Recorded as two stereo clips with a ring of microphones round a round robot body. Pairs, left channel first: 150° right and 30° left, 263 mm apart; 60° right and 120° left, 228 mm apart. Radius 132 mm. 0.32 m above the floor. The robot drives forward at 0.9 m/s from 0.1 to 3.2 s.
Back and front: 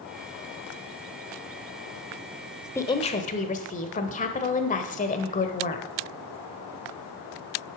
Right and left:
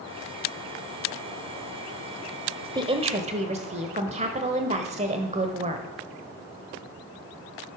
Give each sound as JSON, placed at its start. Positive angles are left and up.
{"t": 2.8, "sound": "a woman speaking", "azimuth_deg": 145, "distance_m": 0.9}